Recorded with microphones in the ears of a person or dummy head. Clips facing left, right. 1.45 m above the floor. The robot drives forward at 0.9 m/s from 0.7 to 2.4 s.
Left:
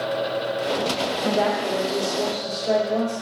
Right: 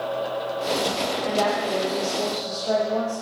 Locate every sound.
1.2 s a woman speaking: 40° left (ahead or behind), 0.6 m; by 3.1 s 15° left (ahead or behind), 1.5 m